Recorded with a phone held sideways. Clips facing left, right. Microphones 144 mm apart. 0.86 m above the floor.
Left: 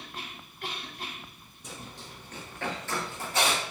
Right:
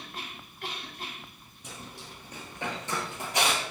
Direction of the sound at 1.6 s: 10° right (ahead or behind).